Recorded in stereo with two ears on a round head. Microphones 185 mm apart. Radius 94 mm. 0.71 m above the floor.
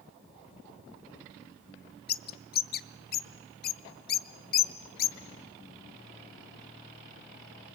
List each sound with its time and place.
2.1 s a bird: 50° left (ahead or behind), 0.7 m